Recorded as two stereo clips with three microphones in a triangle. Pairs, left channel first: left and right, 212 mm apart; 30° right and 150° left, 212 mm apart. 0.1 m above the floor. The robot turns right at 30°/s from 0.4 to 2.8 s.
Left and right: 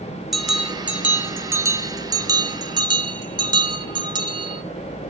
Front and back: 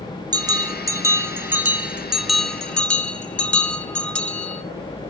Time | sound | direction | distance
0.3 | a bell | straight behind | 0.6 m